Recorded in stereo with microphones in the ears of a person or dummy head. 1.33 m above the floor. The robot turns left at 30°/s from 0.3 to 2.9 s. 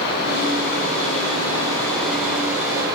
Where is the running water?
55° left, 5.5 m; by 3.0 s 20° right, 5.5 m.